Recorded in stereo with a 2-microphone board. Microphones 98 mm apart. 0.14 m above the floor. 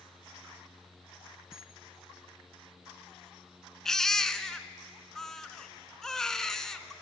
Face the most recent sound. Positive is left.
turn(degrees=5)  # may be behind; listen again after turning